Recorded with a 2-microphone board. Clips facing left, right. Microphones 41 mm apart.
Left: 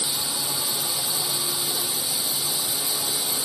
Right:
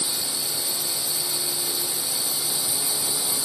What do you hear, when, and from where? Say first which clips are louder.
0.0 s a drone: left 1 dB; 45° left (ahead or behind)